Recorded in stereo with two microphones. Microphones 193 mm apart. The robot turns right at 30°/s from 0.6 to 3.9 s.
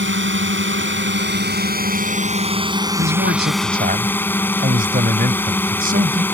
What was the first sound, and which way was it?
A drone, 90° right.